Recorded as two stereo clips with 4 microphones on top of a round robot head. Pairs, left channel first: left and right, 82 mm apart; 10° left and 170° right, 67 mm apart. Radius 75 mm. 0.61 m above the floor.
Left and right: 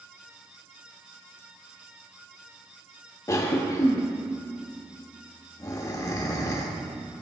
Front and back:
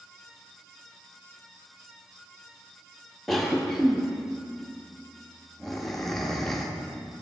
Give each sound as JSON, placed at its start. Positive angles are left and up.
{"t": 3.3, "sound": "a cough", "azimuth_deg": 90, "distance_m": 0.7}